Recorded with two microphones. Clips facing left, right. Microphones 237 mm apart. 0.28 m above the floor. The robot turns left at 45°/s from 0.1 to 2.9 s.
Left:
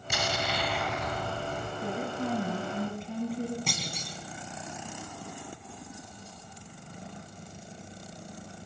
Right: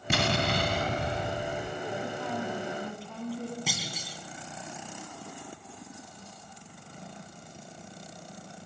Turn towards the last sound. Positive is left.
turn(degrees=-5)  # may be behind; listen again after turning